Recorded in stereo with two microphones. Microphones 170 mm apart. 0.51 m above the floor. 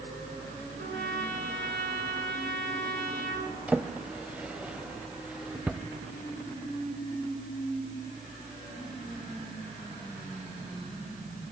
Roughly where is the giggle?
I don't hear a giggle.